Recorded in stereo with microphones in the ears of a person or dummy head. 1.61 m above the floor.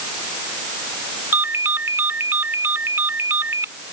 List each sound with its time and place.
1.3 s a ringtone: 10° right (ahead or behind)